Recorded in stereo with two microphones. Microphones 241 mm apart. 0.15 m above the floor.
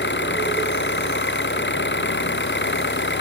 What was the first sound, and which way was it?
An engine running, 50° left (ahead or behind).